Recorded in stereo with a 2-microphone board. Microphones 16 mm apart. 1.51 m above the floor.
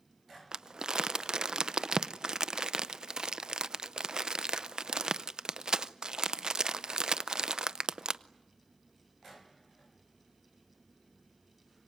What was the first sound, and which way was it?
Crumpling, 50° right (ahead or behind).